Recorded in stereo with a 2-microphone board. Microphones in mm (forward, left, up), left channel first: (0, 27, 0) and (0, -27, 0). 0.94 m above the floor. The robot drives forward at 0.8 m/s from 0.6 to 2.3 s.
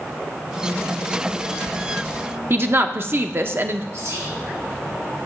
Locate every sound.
2.5 s a woman speaking: 45° right (ahead or behind), 0.5 m
3.9 s whispering: 70° right (ahead or behind), 2.5 m